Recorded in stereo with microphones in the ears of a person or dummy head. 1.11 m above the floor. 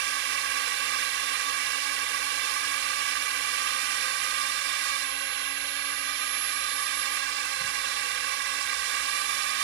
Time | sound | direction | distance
0.0 | a drone | 60° right (ahead or behind) | ?